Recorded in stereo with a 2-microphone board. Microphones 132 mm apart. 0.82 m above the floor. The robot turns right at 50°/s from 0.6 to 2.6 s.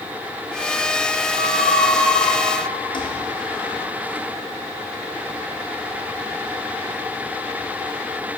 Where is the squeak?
65° left (ahead or behind), 0.7 m; by 4.2 s 35° left (ahead or behind), 0.7 m.